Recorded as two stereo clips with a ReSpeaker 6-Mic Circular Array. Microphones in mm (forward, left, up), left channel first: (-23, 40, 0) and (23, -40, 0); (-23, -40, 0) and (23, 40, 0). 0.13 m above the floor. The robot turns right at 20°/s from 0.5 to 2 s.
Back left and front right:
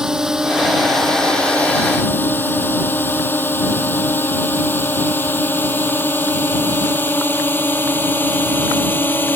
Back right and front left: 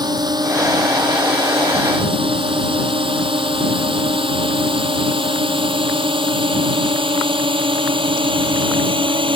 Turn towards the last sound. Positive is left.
turn(degrees=50)